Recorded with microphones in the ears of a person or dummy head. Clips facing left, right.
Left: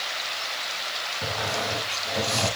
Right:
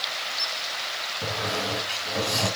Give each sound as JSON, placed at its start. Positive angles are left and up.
{"t": 1.2, "sound": "a squeak", "side_deg": 0, "distance_m": 4.5}